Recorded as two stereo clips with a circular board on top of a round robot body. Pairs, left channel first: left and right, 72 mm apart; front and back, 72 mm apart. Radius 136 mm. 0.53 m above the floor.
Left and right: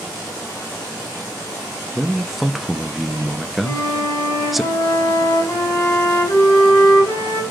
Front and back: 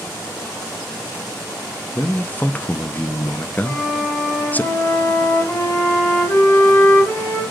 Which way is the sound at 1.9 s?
5° right.